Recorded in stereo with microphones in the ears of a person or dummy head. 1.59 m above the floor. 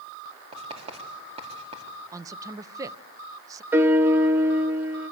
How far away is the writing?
About 3.5 m.